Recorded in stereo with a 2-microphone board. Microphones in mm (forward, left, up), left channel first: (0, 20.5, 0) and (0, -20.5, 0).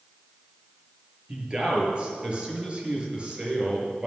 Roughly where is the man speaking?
Right.